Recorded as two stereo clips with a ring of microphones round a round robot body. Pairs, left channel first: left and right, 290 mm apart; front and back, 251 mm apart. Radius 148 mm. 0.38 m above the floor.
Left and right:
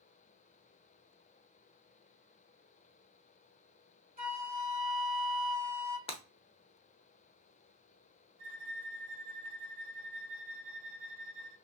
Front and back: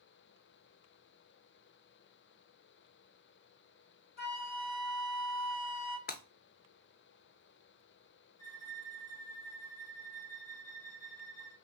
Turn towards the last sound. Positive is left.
turn(degrees=-30)